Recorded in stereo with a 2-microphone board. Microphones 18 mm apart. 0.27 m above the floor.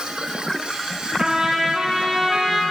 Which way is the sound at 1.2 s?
40° right (ahead or behind).